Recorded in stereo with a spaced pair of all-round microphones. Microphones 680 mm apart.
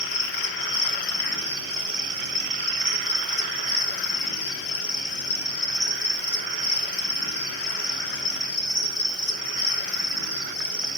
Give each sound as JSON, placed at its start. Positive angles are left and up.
{"t": 0.0, "sound": "an insect", "side_deg": 40, "distance_m": 1.6}